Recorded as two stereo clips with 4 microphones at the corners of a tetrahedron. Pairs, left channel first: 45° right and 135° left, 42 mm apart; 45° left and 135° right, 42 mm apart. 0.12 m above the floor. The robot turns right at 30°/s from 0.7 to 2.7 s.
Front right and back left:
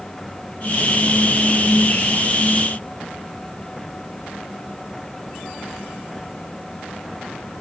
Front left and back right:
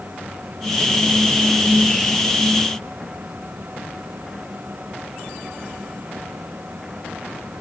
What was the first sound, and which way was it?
Only background noise.